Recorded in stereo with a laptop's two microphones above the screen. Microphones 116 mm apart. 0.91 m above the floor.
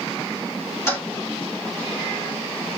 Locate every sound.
0.9 s a toilet flushing: 25° left (ahead or behind), 1.8 m